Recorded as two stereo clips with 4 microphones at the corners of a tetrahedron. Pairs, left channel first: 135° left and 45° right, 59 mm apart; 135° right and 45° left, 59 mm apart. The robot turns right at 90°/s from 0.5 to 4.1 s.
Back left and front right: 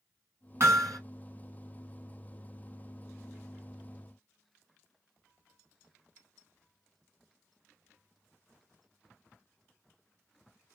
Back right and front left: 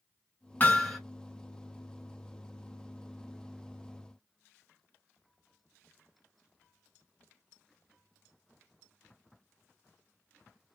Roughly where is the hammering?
Right.